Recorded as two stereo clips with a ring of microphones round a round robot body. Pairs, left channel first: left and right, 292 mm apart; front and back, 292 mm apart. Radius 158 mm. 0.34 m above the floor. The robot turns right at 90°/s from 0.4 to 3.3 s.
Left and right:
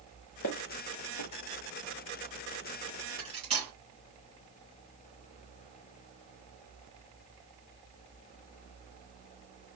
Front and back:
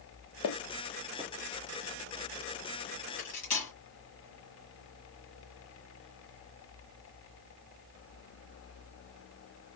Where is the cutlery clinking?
30° right, 3 m; by 3.7 s 15° right, 3 m.